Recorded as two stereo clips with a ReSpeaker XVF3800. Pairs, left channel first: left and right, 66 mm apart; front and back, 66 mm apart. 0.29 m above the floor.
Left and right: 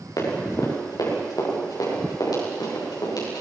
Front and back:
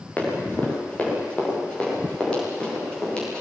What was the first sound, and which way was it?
Running footsteps, 65° left.